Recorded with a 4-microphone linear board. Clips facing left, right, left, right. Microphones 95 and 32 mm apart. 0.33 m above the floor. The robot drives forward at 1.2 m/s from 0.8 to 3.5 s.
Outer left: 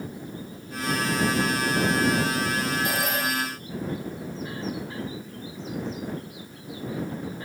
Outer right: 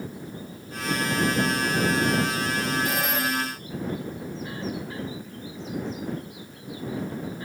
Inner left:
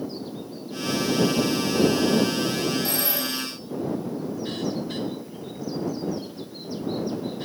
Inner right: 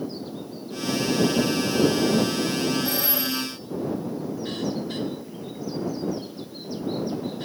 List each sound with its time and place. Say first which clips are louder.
2.9 s a phone ringing: even, inner right 1 dB; 85° left, 8 m